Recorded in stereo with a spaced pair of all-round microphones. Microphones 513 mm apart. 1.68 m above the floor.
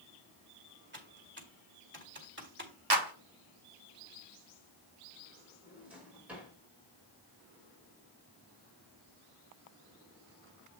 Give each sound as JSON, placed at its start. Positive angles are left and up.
{"t": 0.9, "sound": "typing on a keyboard", "side_deg": -20, "distance_m": 1.9}
{"t": 2.9, "sound": "a clap", "side_deg": -50, "distance_m": 1.3}
{"t": 5.6, "sound": "a drawer", "side_deg": -5, "distance_m": 5.0}